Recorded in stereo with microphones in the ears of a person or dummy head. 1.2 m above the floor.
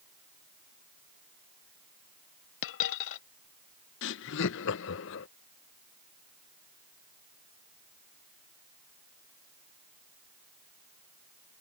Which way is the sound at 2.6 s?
70° left (ahead or behind).